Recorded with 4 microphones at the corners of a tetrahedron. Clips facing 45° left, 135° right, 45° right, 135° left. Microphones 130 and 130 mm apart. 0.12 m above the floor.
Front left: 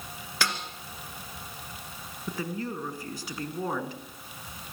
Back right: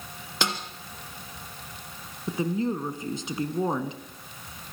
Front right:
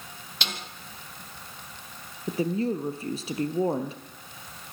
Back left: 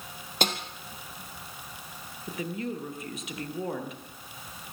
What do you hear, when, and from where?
0.4 s a snare drum: 160° left, 2.5 m
2.3 s a woman speaking: 80° right, 1.7 m